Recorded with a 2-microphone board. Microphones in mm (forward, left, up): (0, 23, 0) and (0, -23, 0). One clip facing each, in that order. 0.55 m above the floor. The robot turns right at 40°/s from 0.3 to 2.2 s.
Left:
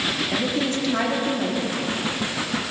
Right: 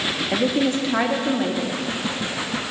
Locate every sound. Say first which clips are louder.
0.3 s a woman speaking: right 6 dB; 30° right (ahead or behind), 0.7 m; by 1.8 s 10° right (ahead or behind), 0.7 m